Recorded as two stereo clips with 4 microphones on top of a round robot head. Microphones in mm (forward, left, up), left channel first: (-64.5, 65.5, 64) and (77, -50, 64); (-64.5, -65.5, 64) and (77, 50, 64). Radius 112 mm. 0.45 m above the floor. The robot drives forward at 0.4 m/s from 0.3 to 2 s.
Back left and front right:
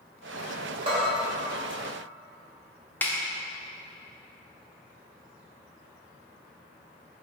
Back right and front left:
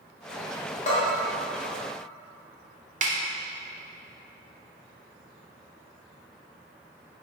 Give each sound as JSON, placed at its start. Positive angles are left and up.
{"t": 0.9, "sound": "a bell", "azimuth_deg": -95, "distance_m": 1.1}
{"t": 3.0, "sound": "a snare drum", "azimuth_deg": 65, "distance_m": 0.6}